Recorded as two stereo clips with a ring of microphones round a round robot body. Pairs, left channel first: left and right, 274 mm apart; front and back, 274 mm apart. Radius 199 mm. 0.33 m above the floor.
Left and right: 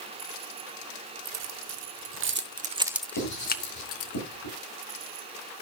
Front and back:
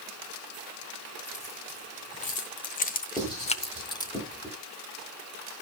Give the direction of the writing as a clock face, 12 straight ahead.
9 o'clock.